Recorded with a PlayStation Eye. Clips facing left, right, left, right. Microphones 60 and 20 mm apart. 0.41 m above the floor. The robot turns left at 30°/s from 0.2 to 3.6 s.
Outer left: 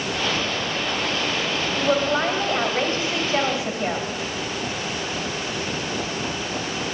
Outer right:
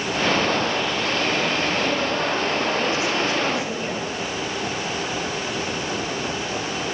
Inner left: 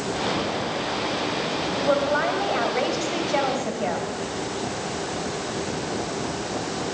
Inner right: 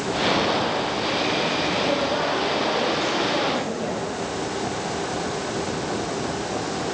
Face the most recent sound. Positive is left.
turn(degrees=30)